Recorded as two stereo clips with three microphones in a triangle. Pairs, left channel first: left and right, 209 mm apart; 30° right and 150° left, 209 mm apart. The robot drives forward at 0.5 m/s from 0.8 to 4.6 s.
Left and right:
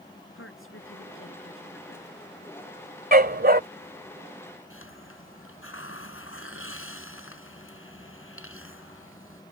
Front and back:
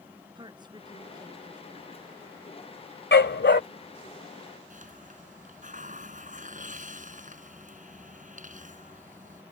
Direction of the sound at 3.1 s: 50° right.